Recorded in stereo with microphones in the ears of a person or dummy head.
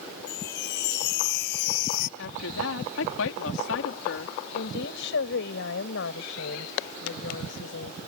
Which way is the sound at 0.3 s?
70° left (ahead or behind).